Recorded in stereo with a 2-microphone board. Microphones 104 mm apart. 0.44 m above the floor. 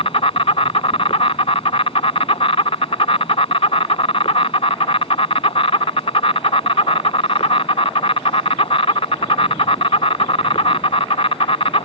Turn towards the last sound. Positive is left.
turn(degrees=75)  # may be behind; listen again after turning